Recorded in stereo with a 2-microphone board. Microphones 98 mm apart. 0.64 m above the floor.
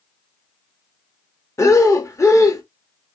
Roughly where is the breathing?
Left.